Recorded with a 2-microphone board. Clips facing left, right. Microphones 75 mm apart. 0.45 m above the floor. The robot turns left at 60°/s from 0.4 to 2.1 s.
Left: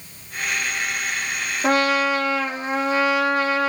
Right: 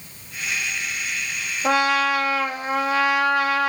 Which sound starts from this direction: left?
A trumpet, at 1.6 s.